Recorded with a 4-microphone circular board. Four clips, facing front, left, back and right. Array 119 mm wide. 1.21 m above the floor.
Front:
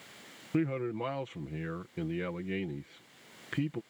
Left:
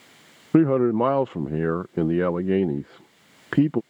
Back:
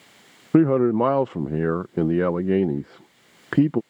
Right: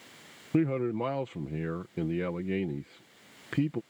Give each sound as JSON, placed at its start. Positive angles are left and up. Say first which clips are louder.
{"t": 0.5, "sound": "a man speaking", "louder": "left 10 dB, back 15 dB", "azimuth_deg": 145}